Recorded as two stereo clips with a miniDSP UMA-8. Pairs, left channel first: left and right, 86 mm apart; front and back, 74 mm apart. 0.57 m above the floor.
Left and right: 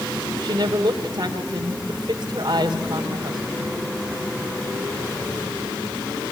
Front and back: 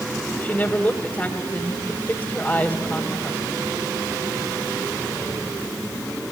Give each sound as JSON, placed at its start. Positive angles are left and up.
{"t": 0.4, "sound": "a woman speaking", "azimuth_deg": -65, "distance_m": 2.0}